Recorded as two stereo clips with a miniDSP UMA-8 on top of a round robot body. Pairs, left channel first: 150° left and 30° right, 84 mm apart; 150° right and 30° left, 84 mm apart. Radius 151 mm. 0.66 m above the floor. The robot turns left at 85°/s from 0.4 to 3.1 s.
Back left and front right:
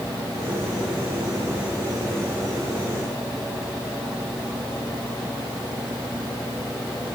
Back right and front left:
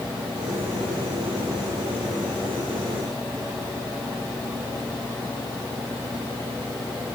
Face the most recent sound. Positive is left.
No sound to turn to.